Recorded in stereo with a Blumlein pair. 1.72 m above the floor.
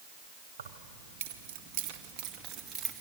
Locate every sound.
0.6 s keys jangling: 65° right, 2 m; by 3.0 s 20° right, 2.5 m